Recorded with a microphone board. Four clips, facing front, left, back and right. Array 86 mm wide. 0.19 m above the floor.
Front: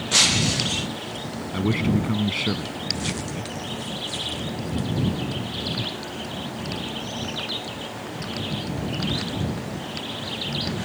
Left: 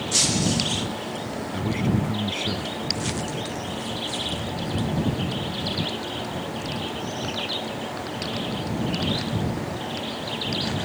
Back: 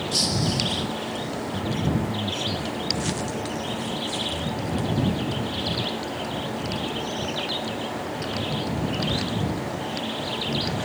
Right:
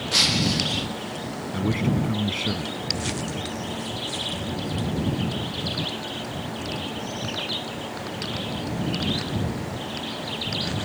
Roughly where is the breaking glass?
Ahead.